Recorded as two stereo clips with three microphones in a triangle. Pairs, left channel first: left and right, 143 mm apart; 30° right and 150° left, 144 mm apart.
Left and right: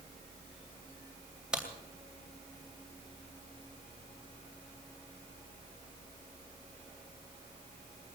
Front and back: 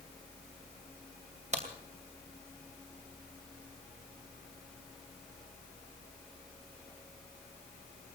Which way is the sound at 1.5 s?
175° right.